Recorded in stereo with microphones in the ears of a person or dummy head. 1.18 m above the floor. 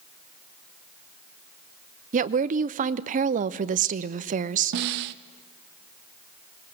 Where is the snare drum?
60° right (ahead or behind), 0.6 m.